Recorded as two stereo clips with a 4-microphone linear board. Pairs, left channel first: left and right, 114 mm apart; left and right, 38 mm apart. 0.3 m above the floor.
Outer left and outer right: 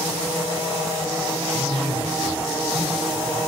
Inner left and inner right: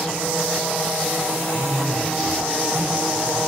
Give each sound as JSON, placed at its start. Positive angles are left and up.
{"t": 1.5, "sound": "a man speaking", "side_deg": 0, "distance_m": 2.0}